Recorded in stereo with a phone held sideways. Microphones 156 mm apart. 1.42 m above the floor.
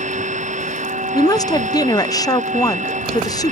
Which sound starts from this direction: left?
A woman speaking, at 1.1 s.